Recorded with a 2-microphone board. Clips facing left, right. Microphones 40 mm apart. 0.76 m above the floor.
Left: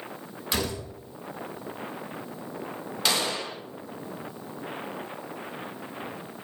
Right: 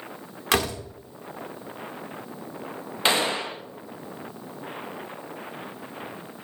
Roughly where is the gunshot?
Right.